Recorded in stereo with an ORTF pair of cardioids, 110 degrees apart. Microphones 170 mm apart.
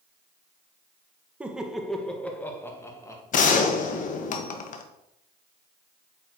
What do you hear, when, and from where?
1.4 s laughter: 10° right, 1.3 m; by 3.2 s 20° left, 2 m
3.3 s a gunshot: 50° left, 1.2 m